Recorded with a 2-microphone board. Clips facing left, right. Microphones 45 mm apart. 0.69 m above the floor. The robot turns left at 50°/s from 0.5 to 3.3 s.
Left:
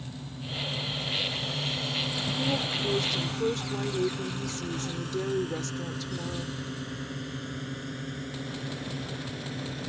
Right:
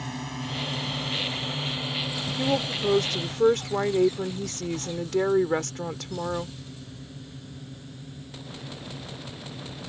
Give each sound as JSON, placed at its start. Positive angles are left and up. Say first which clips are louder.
{"t": 0.0, "sound": "a drone", "louder": "right 7 dB", "side_deg": -75}
{"t": 2.4, "sound": "a woman speaking", "louder": "right 5 dB", "azimuth_deg": -40}